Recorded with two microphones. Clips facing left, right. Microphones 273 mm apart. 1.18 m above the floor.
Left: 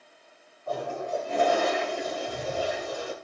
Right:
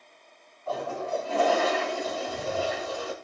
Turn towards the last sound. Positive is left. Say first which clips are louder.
# even
turn(degrees=15)  # may be behind; listen again after turning